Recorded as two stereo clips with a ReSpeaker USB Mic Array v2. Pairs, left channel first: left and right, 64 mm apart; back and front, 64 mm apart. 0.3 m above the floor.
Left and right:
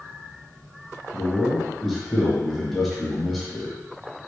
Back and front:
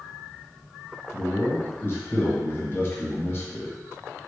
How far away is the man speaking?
About 1.0 m.